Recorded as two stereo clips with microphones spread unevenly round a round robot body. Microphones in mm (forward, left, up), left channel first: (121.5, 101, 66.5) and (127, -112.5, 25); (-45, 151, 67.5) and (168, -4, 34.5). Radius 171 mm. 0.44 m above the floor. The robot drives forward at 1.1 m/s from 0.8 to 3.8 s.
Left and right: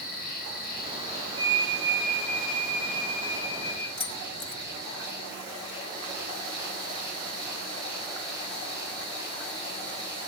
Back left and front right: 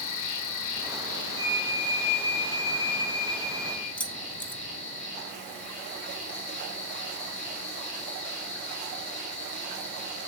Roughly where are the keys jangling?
Ahead left.